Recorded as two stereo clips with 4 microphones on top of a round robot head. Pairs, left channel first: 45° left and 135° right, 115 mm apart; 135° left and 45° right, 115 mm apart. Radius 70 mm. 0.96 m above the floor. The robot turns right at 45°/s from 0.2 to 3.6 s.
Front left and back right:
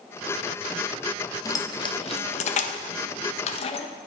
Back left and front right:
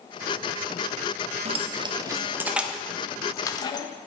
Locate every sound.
1.4 s keys jangling: 15° right, 0.7 m; by 3.9 s 80° left, 0.7 m